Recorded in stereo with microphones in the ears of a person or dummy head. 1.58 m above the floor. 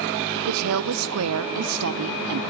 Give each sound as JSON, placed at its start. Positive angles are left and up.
{"t": 0.5, "sound": "a woman speaking", "side_deg": -75, "distance_m": 0.6}